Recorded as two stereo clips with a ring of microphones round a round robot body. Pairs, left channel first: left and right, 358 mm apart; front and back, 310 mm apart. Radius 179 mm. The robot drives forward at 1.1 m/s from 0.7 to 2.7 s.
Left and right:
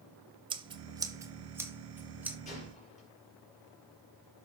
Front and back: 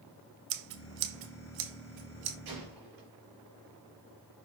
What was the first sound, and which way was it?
Scissors, 165° right.